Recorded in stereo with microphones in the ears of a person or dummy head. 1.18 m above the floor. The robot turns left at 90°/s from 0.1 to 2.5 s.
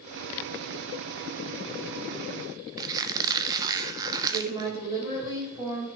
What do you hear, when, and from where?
2.8 s a squeak: 25° right (ahead or behind), 0.6 m
4.3 s a woman speaking: 20° right (ahead or behind), 3.5 m